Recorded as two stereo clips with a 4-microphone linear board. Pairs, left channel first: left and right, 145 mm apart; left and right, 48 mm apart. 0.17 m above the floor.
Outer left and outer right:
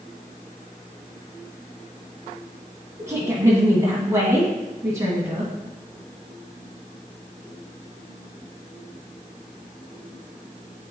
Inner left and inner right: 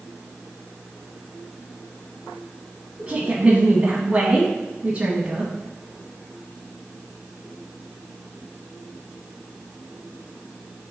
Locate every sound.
3.0 s a woman speaking: 20° right (ahead or behind), 1.5 m